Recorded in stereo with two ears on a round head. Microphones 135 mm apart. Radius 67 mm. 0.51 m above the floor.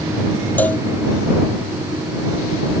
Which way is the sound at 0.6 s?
10° left (ahead or behind).